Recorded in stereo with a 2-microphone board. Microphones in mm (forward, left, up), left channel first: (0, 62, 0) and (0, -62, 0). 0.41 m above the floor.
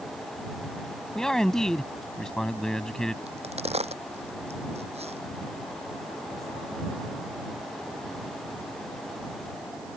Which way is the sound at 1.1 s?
5° left (ahead or behind).